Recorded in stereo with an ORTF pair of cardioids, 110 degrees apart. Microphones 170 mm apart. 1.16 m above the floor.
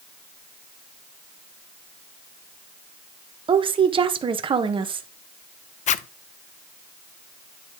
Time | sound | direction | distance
3.5 | a woman speaking | 30° right | 1.0 m
5.9 | a zipper | 45° left | 0.5 m